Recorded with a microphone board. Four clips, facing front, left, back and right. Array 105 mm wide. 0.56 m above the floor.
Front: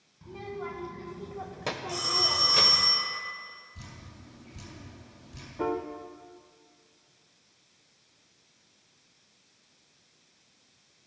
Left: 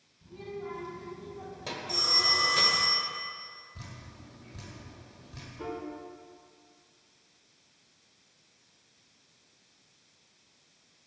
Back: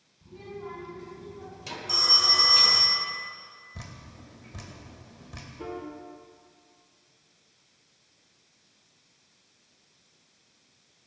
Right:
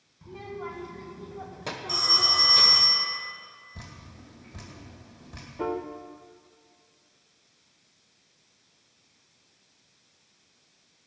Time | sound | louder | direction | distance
0.2 | a child speaking | right 2 dB, front 3 dB | 45° right | 2 m
1.9 | a phone ringing | right 3 dB, back 5 dB | 155° right | 2.5 m
3.8 | dripping | right 4 dB, back 3 dB | 155° right | 2.5 m
5.6 | a piano | right 7 dB, front 7 dB | 45° right | 0.8 m